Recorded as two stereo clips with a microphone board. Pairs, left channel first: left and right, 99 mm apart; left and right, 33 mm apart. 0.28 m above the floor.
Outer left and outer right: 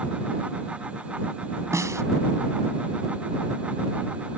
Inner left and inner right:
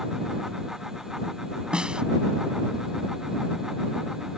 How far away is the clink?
No clink in this recording.